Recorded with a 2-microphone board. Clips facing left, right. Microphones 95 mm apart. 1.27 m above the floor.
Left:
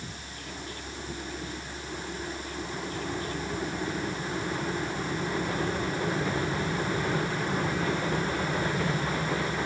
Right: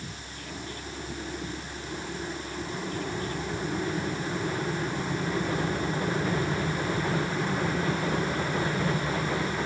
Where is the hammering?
I don't hear hammering.